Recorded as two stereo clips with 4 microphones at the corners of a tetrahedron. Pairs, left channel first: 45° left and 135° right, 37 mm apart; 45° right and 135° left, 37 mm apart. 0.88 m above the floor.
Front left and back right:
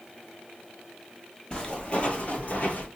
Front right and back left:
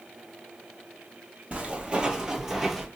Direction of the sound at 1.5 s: 105° left.